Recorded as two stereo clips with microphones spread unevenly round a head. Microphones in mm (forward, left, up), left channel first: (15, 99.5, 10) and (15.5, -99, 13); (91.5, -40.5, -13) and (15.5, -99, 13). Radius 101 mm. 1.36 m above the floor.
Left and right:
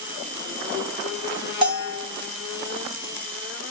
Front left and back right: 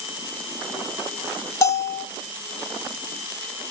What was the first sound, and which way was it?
A bell, 25° right.